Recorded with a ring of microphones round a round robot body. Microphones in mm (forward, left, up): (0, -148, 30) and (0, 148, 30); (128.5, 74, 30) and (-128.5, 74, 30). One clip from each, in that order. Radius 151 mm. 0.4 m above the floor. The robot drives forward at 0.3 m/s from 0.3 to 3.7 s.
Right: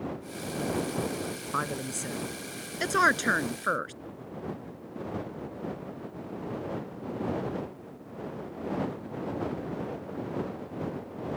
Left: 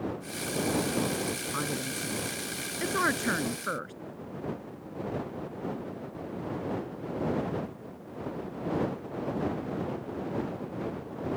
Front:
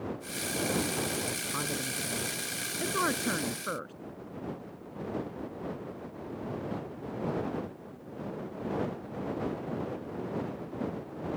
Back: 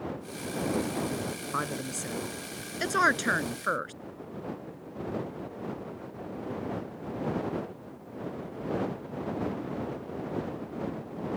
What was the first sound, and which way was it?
A woman speaking, 135° right.